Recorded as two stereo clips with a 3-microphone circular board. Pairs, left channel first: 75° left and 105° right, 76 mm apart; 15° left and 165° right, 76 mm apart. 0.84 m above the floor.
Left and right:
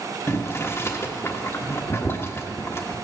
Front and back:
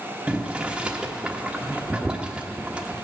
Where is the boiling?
120° left, 1.3 m.